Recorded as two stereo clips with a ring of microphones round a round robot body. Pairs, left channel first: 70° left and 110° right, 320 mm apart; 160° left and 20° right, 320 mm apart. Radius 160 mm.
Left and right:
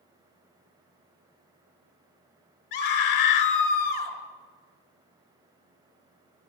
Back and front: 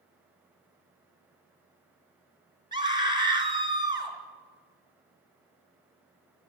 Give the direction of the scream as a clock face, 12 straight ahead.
10 o'clock.